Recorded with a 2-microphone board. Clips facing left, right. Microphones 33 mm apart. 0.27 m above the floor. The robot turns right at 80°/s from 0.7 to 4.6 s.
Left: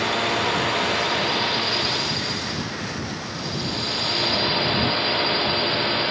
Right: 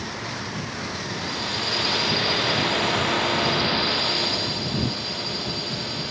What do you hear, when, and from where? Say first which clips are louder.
0.0 s a drone: left 10 dB; 85° left; by 6.1 s 40° left